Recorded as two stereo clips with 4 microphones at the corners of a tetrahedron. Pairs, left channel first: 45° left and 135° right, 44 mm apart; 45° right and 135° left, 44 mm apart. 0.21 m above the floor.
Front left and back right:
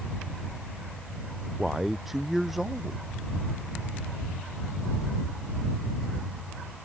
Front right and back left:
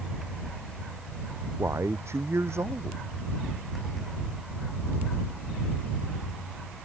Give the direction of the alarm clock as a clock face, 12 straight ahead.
I don't hear an alarm clock.